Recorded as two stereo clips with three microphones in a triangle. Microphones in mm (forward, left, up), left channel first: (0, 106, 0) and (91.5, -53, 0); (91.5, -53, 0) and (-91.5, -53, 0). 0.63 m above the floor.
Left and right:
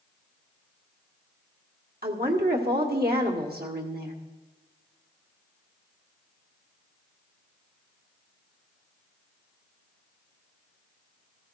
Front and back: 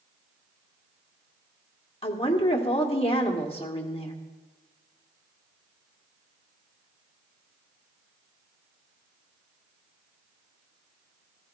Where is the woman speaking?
55° right, 1.7 m.